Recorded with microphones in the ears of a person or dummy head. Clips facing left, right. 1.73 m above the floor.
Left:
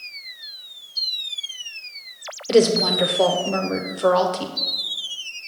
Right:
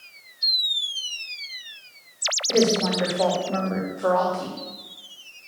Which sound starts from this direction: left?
A woman speaking, at 2.5 s.